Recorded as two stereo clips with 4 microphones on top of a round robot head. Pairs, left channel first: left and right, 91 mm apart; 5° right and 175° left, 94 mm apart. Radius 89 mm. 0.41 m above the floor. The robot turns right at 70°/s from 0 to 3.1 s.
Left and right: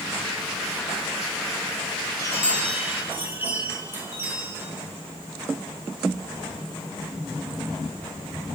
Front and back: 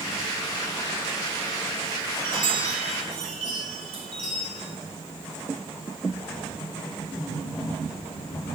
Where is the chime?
140° left, 5.5 m; by 4.6 s 160° right, 5.5 m.